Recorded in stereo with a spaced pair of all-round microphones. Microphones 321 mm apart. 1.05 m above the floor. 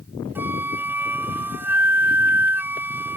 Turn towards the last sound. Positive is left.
turn(degrees=-5)  # may be behind; listen again after turning